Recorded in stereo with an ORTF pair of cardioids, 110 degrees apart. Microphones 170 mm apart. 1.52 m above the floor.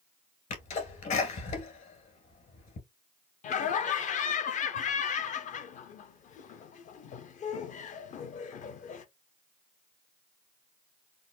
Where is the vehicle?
I don't hear a vehicle.